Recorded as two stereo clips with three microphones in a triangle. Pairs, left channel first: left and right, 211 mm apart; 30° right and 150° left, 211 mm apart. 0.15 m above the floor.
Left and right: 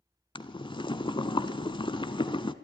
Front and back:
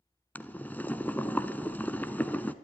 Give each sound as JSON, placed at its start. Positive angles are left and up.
{"t": 0.3, "sound": "boiling", "azimuth_deg": 45, "distance_m": 0.7}